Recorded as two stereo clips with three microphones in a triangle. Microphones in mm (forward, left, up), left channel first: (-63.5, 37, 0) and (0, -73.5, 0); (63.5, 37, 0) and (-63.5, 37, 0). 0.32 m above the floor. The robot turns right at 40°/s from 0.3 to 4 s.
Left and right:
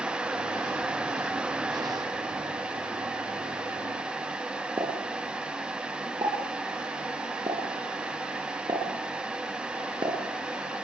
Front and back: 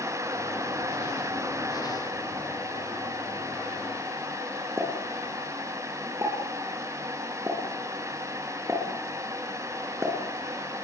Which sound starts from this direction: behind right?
A pop, at 4.8 s.